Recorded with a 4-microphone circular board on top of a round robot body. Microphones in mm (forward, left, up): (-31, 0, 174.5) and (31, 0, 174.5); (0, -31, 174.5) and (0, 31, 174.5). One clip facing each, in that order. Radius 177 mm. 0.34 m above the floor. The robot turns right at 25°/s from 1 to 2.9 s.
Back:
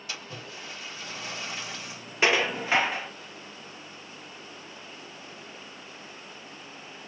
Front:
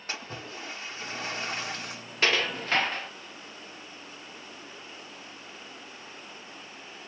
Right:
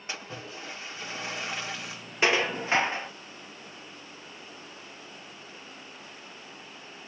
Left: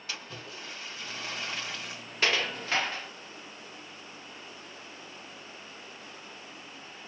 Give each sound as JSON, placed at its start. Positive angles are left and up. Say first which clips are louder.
{"t": 0.1, "sound": "a splash", "louder": "front 3 dB, right 3 dB", "azimuth_deg": -30, "distance_m": 1.3}
{"t": 2.2, "sound": "dishes clattering", "louder": "back 3 dB, right 4 dB", "azimuth_deg": -130, "distance_m": 0.6}